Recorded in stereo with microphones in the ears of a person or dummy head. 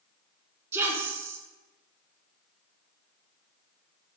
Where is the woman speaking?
15° right (ahead or behind), 0.7 m.